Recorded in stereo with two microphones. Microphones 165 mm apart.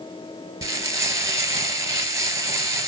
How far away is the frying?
About 0.7 m.